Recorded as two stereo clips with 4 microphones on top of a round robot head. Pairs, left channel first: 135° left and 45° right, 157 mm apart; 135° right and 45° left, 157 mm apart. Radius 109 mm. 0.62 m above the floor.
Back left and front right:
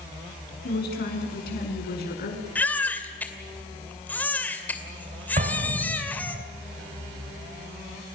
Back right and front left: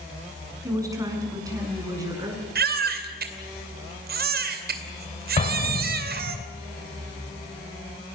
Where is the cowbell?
I don't hear a cowbell.